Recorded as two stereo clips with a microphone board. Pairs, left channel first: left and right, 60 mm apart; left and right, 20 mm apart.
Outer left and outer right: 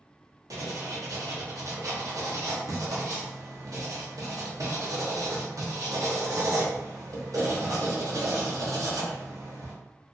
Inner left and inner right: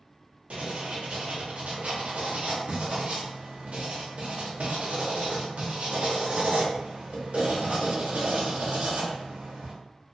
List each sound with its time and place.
0.5 s writing: 70° right (ahead or behind), 0.8 m